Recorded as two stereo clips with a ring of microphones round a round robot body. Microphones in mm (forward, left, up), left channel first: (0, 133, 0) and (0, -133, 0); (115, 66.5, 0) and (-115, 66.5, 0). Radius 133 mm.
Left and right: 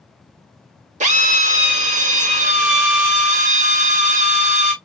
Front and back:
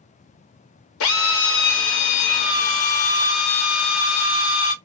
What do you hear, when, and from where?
1.0 s a drill: 30° right, 0.7 m